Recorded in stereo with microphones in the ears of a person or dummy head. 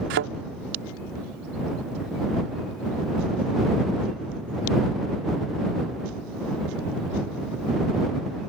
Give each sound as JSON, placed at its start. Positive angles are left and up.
{"t": 0.1, "sound": "a thud", "side_deg": -50}